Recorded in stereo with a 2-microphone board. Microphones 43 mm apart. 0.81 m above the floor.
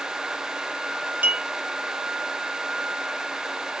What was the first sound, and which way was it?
A clink, 35° right (ahead or behind).